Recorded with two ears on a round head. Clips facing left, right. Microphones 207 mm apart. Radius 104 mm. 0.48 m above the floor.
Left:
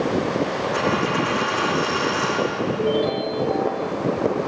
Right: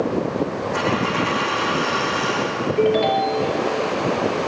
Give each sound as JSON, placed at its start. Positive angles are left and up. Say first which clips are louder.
{"t": 0.7, "sound": "a dropped coin", "louder": "even", "side_deg": 5, "distance_m": 9.0}
{"t": 2.8, "sound": "a ringtone", "louder": "right 5 dB", "side_deg": -85, "distance_m": 4.0}